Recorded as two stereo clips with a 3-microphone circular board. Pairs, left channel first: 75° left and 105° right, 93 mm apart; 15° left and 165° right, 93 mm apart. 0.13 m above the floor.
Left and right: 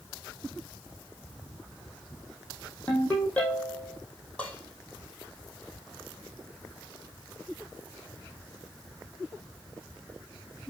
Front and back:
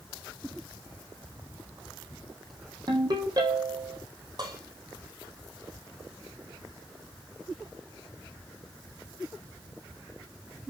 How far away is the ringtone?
About 4 m.